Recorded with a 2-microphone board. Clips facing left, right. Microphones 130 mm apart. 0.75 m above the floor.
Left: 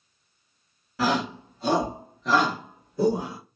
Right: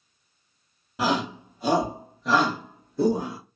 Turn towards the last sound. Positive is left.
turn(degrees=10)  # may be behind; listen again after turning